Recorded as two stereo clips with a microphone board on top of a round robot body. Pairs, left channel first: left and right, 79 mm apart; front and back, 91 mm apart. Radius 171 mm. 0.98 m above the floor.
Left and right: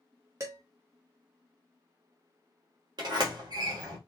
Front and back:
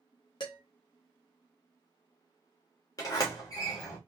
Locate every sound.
0.4 s dishes clattering: 35° right, 1.0 m
3.0 s a sliding door: 55° right, 1.1 m